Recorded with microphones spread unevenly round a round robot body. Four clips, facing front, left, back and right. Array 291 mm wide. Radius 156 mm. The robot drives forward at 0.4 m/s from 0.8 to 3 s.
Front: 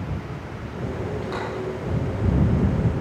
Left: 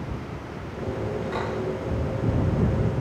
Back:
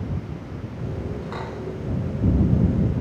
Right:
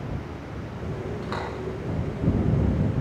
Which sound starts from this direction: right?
A door slam, at 1.2 s.